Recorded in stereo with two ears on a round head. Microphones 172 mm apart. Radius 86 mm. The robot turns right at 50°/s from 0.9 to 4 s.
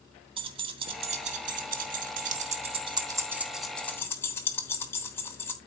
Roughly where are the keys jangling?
Right.